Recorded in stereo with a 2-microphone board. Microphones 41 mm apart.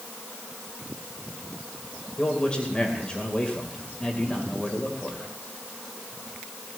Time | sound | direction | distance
2.2 | a man speaking | 25° left (ahead or behind) | 2.5 m